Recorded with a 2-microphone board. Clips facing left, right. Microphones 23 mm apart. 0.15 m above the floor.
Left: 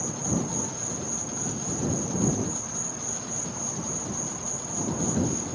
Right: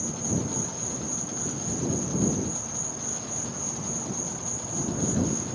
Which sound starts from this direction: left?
An insect, at 0.0 s.